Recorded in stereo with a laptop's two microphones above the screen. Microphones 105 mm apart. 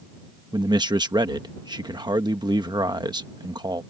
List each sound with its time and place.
0.5 s a man speaking: 45° right (ahead or behind)